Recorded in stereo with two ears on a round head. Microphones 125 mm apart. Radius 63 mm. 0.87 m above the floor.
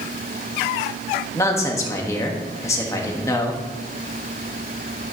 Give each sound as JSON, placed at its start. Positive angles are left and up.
{"t": 1.4, "sound": "a man speaking", "side_deg": 20, "distance_m": 1.4}